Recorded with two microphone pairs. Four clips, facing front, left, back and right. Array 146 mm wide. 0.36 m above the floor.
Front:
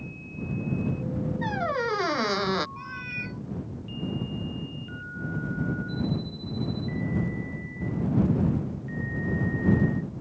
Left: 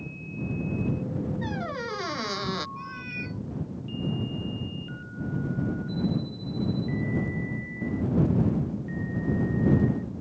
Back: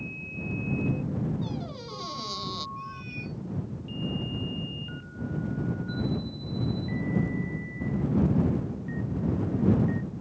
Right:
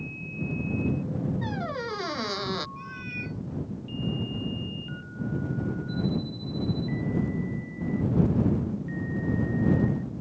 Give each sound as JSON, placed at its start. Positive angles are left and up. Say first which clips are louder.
{"t": 1.4, "sound": "a squeak", "louder": "even, front 8 dB", "azimuth_deg": -10}
{"t": 2.8, "sound": "a cat meowing", "louder": "left 1 dB, front 1 dB", "azimuth_deg": 15}